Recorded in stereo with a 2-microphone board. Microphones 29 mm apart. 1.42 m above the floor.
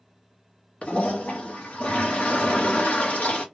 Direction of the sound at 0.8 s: 45° left (ahead or behind).